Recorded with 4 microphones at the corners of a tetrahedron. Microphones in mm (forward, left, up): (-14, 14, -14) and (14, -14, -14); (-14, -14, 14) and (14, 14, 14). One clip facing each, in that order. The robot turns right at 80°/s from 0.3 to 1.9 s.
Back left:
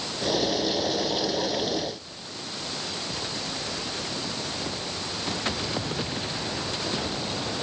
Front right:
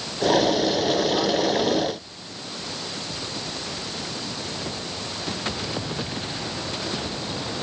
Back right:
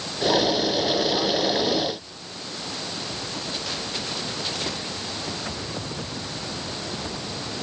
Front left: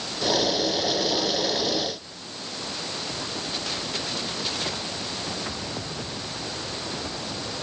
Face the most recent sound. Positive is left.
No sound to turn to.